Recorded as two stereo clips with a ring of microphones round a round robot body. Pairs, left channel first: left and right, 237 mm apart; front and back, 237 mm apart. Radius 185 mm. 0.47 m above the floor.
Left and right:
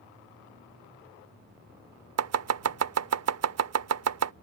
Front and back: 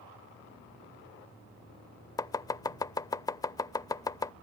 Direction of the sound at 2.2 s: 75° right.